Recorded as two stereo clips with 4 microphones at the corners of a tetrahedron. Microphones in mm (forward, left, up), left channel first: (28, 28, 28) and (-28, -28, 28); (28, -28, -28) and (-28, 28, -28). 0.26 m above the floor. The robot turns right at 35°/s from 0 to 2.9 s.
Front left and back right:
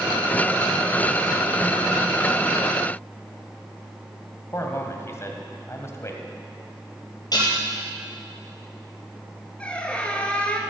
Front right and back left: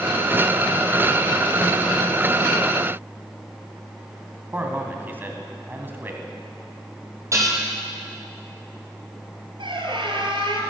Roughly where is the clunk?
I don't hear a clunk.